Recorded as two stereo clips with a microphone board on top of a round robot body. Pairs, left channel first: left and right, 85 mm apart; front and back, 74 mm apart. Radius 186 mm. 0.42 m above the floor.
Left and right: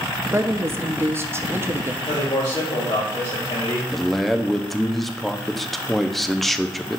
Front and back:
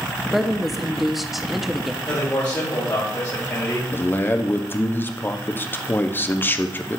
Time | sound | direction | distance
0.3 | a woman speaking | 95° right | 0.9 m
2.0 | a man speaking | 60° left | 3 m
3.9 | a man speaking | 5° left | 0.8 m